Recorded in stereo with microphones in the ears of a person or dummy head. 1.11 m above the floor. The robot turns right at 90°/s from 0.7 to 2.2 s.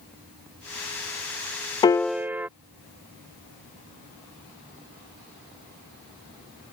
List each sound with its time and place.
1.8 s a piano: 155° left; by 2.5 s 170° right